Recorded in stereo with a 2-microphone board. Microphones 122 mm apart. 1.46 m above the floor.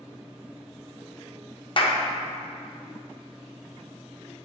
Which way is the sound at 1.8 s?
45° left (ahead or behind).